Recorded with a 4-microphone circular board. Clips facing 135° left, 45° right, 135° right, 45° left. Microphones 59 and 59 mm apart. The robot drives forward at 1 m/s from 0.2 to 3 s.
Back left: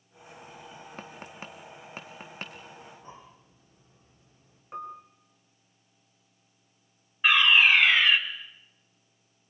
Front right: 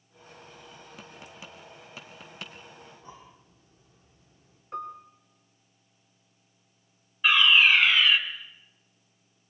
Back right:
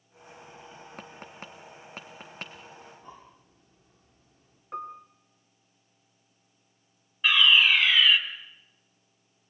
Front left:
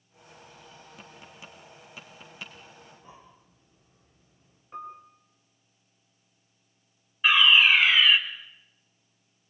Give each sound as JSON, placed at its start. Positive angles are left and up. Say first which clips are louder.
{"t": 1.0, "sound": "tapping", "louder": "back left 4 dB, back right 5 dB", "azimuth_deg": -175, "distance_m": 1.7}
{"t": 2.8, "sound": "breathing", "louder": "back left 1 dB, back right 3 dB", "azimuth_deg": -165, "distance_m": 6.5}
{"t": 4.7, "sound": "a piano", "louder": "front right 2 dB, back right 3 dB", "azimuth_deg": -150, "distance_m": 4.5}
{"t": 7.2, "sound": "a fire alarm", "louder": "even, front left 2 dB", "azimuth_deg": 120, "distance_m": 2.5}